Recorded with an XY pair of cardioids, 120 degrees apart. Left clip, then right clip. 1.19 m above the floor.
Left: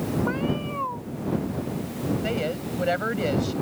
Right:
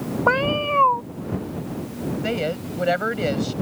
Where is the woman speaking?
25° right.